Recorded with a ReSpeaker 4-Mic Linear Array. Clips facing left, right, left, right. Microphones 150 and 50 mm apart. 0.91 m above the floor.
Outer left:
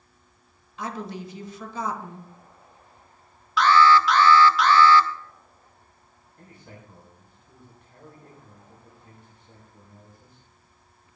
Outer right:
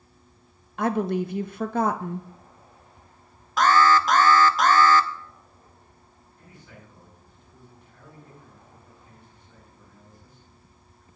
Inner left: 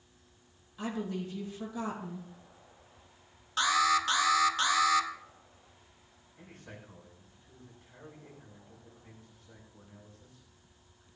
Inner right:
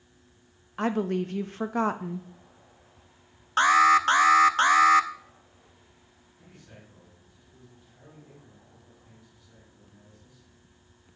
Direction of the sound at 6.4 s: 60° left (ahead or behind).